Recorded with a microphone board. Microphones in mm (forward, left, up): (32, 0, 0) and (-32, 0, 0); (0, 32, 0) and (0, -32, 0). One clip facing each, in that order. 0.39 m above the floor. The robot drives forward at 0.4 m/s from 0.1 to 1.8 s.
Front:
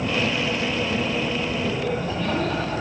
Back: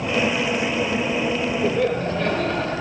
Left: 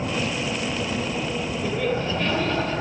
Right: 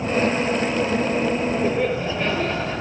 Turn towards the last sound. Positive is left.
turn(degrees=-155)